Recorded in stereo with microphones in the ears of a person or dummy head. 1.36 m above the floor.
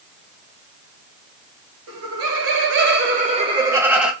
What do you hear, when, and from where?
1.9 s laughter: 70° right (ahead or behind), 1.0 m; by 4.1 s centre (ahead or behind), 0.7 m